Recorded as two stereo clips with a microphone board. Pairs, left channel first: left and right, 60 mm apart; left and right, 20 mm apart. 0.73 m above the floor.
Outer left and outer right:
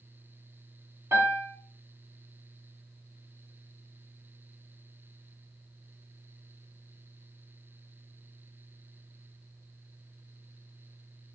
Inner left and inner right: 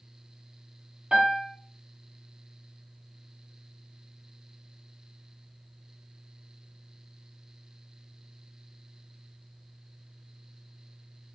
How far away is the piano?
About 1.1 m.